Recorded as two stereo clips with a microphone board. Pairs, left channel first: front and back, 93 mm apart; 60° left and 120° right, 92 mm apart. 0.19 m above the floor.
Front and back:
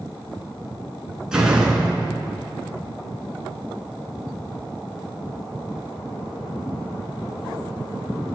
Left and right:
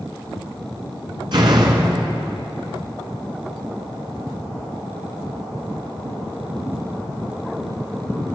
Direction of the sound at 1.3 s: 100° right.